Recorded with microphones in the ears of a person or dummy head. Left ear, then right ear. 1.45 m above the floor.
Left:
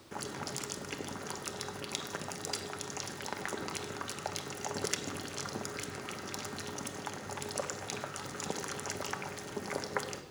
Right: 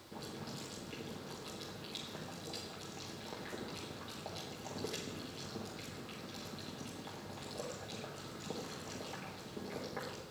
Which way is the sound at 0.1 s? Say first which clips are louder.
Left 7 dB; 55° left (ahead or behind).